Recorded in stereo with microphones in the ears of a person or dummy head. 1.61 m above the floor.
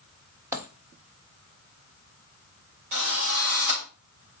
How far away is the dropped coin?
About 1.2 m.